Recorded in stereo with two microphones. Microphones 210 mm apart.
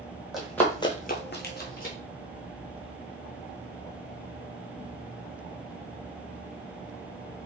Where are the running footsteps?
Centre (ahead or behind), 1.0 m; by 1.9 s 40° left (ahead or behind), 1.2 m.